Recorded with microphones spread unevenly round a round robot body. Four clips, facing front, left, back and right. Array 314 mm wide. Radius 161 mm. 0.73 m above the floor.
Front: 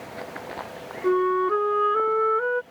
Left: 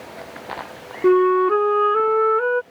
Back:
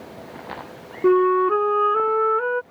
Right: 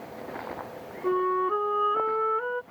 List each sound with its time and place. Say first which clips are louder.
1.0 s a flute: left 10 dB, back 5 dB; 140° left